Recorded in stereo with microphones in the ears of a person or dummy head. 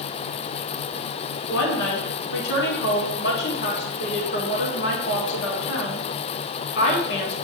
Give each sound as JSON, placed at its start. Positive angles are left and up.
{"t": 1.5, "sound": "a woman speaking", "side_deg": 65, "distance_m": 3.0}